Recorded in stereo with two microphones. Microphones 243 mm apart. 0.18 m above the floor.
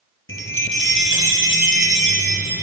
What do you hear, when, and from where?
0.3 s a chime: 60° left (ahead or behind), 1.1 m